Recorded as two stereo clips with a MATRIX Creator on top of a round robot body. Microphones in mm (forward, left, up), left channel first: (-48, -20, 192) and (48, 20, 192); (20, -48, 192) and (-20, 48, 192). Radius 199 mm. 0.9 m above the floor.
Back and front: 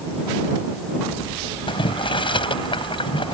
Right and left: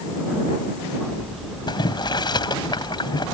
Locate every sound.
1.7 s boiling: 115° right